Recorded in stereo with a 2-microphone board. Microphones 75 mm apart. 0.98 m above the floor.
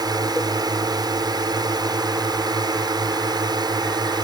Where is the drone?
60° right (ahead or behind); by 4.2 s 65° right (ahead or behind).